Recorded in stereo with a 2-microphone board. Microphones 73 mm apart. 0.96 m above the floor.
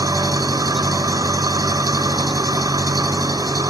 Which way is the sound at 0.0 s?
70° right (ahead or behind).